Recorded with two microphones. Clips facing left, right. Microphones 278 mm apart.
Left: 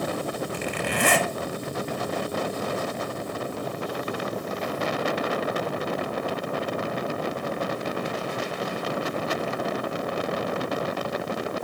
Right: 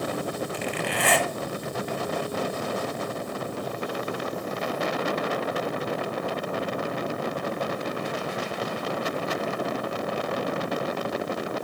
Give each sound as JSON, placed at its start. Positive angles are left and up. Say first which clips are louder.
{"t": 0.5, "sound": "a zipper", "louder": "left 1 dB", "side_deg": 50, "distance_m": 0.8}